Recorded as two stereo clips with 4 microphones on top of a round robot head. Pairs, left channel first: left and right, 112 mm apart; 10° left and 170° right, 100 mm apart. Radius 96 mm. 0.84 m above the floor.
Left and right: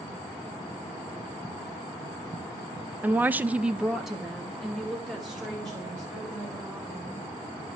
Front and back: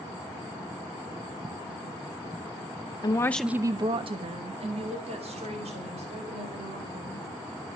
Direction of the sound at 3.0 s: 20° right.